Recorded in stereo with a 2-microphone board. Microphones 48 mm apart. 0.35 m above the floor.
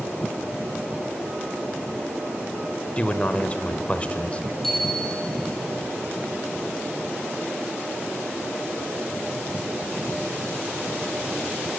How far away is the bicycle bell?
About 7 m.